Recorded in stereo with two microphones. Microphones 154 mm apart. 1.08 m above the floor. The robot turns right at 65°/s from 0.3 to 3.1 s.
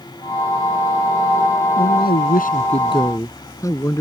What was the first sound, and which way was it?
A man speaking, 75° left.